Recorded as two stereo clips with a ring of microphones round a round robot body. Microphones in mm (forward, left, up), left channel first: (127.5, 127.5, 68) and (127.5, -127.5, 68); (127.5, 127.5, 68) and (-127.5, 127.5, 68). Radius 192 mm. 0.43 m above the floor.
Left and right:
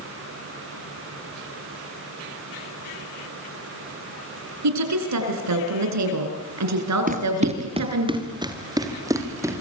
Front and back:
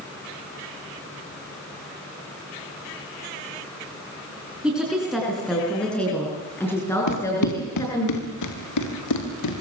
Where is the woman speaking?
95° right, 6 m; by 8.1 s 80° right, 7.5 m.